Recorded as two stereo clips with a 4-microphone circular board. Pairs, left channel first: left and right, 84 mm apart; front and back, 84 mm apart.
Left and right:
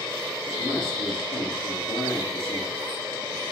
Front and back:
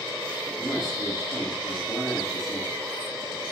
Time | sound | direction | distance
0.5 | a man speaking | 90° left | 3 m